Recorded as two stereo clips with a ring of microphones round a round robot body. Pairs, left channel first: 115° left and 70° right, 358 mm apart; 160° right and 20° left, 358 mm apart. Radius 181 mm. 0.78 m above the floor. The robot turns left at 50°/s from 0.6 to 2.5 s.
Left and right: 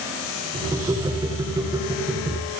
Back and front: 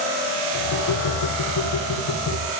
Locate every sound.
Only background noise.